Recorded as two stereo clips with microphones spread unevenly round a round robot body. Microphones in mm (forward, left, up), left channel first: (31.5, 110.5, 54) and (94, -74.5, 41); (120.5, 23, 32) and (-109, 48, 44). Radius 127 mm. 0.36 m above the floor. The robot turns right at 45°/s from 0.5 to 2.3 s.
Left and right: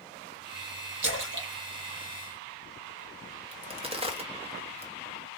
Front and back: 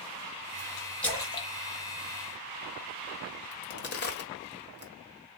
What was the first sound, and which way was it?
A splash, 90° right.